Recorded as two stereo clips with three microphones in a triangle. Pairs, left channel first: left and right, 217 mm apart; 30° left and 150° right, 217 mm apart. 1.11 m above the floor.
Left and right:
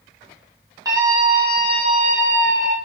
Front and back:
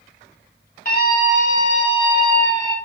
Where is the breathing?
I don't hear breathing.